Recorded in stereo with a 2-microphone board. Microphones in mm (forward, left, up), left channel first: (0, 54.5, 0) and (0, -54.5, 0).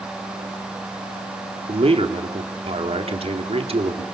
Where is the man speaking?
60° right (ahead or behind), 2.5 m.